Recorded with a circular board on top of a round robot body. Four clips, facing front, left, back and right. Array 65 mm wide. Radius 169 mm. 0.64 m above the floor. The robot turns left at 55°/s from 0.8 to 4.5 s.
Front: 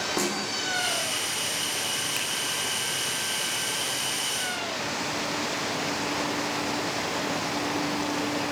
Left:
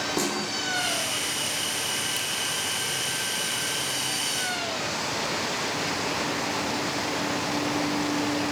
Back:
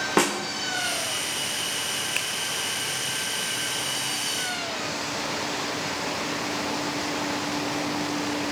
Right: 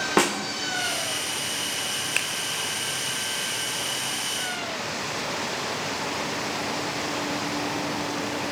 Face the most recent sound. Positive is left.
turn(degrees=120)